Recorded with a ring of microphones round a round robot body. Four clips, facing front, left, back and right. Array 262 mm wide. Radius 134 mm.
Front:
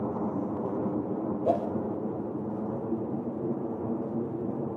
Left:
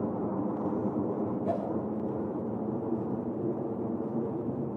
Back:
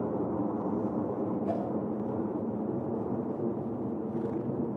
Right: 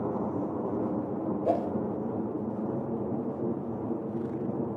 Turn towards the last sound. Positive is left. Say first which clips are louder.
# right 7 dB, front 5 dB
turn(degrees=-35)